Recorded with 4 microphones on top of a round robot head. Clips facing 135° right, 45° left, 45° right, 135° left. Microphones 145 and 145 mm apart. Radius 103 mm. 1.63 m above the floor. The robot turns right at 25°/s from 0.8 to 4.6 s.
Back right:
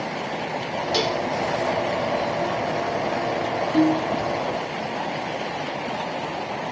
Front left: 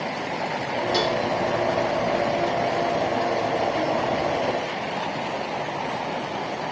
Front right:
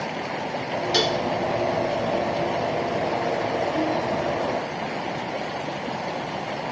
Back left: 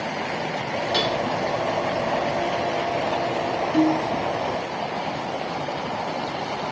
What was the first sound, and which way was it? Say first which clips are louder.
Dishes clattering: even, front right 1 dB; 70° right.